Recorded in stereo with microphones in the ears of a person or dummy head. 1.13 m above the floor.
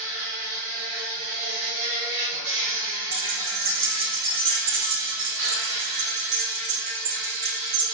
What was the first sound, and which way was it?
An insect, 65° right (ahead or behind).